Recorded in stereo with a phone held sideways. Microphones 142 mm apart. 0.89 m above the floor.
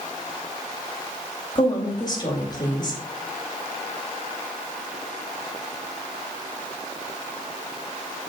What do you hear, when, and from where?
1.6 s a woman speaking: 30° left (ahead or behind), 3.5 m